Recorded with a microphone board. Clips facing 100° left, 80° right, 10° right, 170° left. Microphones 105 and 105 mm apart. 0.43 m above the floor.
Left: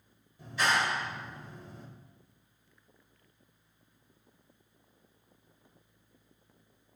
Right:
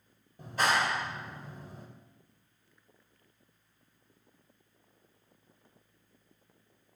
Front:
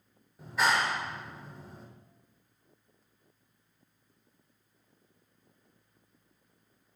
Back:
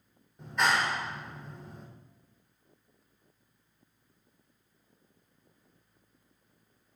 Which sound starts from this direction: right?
A clap, at 0.4 s.